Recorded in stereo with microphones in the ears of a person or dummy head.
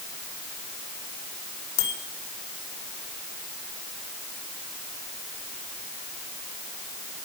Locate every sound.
1.8 s a bicycle bell: 85° left, 4 m